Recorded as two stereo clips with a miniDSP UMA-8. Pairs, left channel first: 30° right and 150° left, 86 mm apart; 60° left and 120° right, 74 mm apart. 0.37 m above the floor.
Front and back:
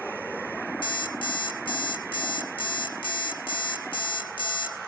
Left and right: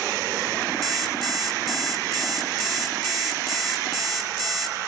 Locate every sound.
0.8 s an alarm clock: 25° right, 2.5 m